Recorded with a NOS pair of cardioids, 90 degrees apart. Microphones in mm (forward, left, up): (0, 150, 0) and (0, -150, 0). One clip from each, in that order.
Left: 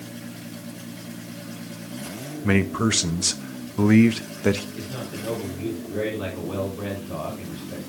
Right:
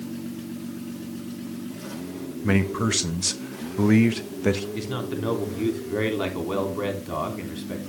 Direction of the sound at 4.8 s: 60° right.